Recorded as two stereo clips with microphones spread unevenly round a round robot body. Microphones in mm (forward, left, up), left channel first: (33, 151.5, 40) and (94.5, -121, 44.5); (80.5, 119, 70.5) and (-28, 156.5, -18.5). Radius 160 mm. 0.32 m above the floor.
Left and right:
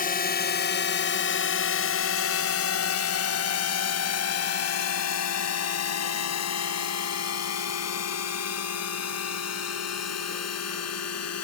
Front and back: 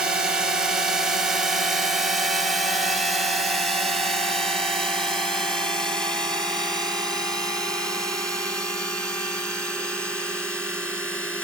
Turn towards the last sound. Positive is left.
turn(degrees=75)